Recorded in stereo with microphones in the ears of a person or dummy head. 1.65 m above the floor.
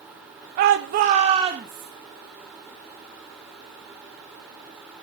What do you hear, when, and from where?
0.6 s a shout: 45° right (ahead or behind), 0.6 m; by 1.9 s 10° right (ahead or behind), 1.2 m